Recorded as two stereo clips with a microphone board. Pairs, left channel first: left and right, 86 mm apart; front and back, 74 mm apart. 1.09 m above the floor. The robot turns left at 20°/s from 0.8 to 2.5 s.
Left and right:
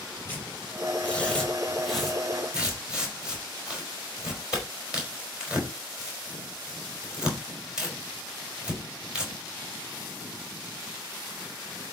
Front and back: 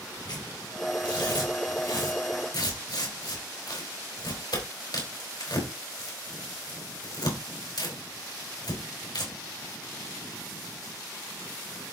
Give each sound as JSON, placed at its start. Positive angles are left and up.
{"t": 0.2, "sound": "tearing paper", "azimuth_deg": 25, "distance_m": 4.5}